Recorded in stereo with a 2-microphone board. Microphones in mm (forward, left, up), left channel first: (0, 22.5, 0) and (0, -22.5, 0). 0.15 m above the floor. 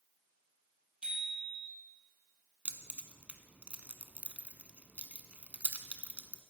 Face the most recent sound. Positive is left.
turn(degrees=-30)  # may be behind; listen again after turning